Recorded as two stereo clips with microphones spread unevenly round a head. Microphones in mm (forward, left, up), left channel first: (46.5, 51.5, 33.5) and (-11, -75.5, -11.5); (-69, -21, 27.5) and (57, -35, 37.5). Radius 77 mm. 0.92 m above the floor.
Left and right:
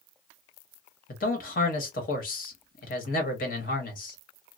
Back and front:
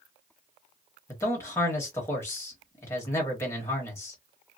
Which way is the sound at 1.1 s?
105° left.